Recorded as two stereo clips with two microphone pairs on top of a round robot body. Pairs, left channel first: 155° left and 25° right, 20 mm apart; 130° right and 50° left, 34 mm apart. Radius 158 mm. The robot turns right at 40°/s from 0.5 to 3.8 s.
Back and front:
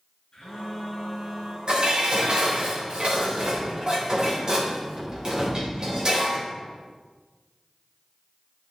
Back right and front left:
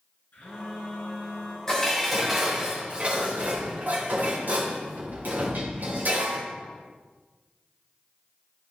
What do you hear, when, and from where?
0.3 s a phone buzzing: 150° right, 4 m; by 1.6 s 110° right, 4 m
1.7 s dishes clattering: 60° right, 3 m; by 6.4 s 25° left, 3 m